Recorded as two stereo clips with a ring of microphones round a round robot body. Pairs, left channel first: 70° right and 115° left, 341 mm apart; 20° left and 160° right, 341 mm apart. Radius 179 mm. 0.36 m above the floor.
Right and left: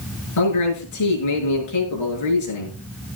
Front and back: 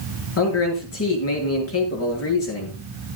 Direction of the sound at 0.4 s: 30° right.